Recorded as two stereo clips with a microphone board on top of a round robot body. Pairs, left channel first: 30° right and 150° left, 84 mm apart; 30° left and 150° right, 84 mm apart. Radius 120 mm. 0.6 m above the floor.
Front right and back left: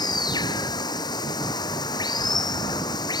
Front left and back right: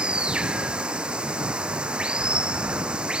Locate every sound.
0.0 s running water: 70° right